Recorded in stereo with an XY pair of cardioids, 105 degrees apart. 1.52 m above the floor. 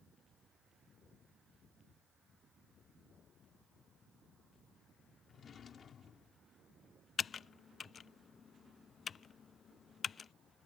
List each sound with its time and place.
5.3 s a drawer: 50° left
7.2 s typing on a keyboard: 40° left